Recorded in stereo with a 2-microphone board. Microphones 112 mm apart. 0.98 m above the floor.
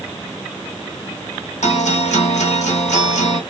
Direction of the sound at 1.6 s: 75° left (ahead or behind).